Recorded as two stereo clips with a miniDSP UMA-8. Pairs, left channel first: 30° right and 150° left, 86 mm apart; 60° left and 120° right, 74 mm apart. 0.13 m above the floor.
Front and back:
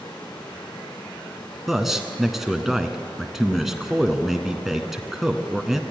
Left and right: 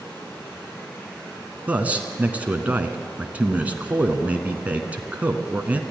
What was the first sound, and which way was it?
Running water, straight ahead.